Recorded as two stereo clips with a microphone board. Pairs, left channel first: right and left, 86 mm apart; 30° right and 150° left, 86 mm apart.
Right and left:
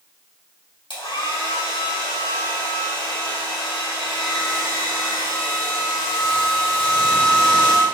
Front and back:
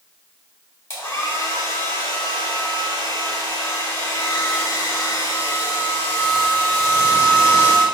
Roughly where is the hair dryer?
Right.